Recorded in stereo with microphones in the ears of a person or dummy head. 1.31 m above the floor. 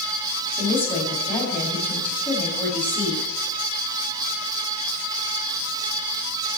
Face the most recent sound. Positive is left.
turn(degrees=20)  # may be behind; listen again after turning